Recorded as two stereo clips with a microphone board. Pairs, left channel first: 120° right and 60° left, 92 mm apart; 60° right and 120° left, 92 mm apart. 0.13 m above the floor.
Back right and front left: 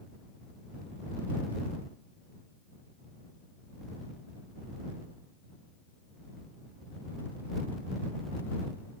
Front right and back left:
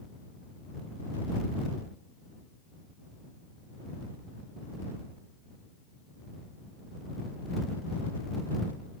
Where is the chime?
No chime in this recording.